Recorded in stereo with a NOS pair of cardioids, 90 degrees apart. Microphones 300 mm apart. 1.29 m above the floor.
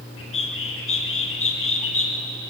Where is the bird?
45° left, 4 m.